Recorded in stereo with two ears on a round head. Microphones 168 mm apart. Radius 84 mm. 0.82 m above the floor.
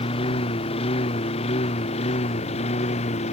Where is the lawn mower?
30° left (ahead or behind); by 3.3 s 35° left (ahead or behind).